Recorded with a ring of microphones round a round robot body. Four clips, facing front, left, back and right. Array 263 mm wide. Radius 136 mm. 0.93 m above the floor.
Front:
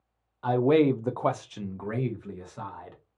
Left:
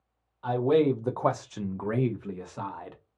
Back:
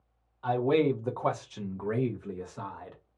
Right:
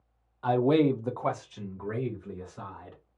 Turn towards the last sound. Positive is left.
turn(degrees=90)